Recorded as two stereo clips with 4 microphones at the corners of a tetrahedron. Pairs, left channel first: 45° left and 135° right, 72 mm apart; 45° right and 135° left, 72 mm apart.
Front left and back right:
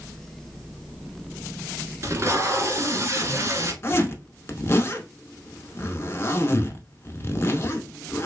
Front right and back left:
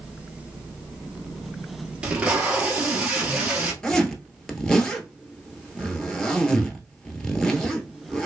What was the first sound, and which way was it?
Tape being pulled, 160° right.